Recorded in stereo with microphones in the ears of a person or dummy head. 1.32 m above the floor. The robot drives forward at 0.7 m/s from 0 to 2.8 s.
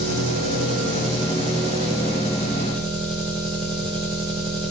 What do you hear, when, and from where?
0.0 s an engine running: 45° right (ahead or behind), 1.6 m; by 4.7 s 20° right (ahead or behind), 3 m